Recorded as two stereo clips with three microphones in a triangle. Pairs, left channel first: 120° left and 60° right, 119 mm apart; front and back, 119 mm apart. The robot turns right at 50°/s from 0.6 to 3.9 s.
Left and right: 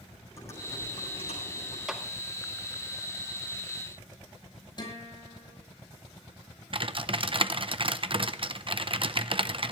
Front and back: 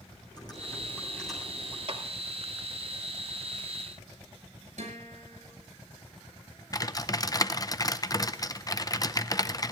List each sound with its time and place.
0.4 s typing on a keyboard: 55° left, 8.5 m; by 1.8 s 115° left, 8.5 m
1.9 s a clap: 145° right, 2 m; by 2.0 s 140° right, 2 m
4.8 s a guitar: 170° left, 6.5 m
6.7 s typing on a keyboard: 50° right, 0.6 m